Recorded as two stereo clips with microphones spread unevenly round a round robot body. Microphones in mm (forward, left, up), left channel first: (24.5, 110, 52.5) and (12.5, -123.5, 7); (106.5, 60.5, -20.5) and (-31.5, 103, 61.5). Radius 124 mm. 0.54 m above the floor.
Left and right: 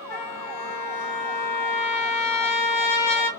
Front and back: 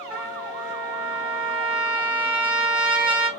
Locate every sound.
0.1 s a trumpet: 75° left, 1.6 m